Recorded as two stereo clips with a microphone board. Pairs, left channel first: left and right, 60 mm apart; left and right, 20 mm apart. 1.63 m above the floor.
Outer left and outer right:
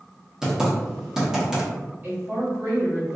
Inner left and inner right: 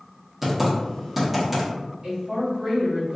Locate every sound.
0.4 s typing on a keyboard: 10° right (ahead or behind), 1.1 m
2.0 s a woman speaking: 35° right (ahead or behind), 1.7 m